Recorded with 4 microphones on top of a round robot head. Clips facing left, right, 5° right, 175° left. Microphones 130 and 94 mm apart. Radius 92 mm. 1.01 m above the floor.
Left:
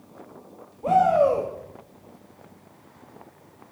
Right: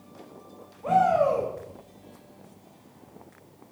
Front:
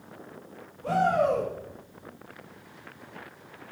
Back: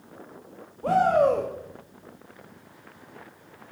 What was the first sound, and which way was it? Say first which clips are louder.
A shout: left 3 dB, back 4 dB; 140° left.